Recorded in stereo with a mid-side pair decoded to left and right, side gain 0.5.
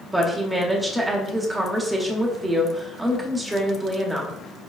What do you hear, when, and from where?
0.1 s a woman speaking: 15° right, 0.8 m